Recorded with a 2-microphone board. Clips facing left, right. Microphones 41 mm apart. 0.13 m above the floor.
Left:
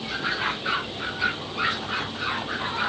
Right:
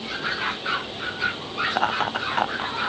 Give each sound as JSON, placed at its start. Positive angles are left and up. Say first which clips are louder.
{"t": 1.7, "sound": "laughter", "louder": "right 5 dB", "side_deg": -85}